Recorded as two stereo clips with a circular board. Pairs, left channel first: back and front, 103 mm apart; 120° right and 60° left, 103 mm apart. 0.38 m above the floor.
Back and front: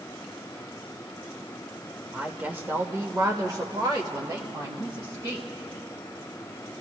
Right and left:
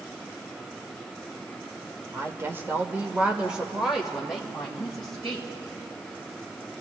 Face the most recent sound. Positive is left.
turn(degrees=-35)